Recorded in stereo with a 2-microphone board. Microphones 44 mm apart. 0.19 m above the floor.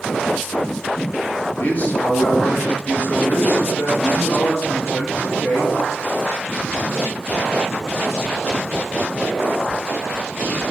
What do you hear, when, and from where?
1.6 s a man speaking: 30° left (ahead or behind), 1.3 m; by 5.7 s 50° left (ahead or behind), 3 m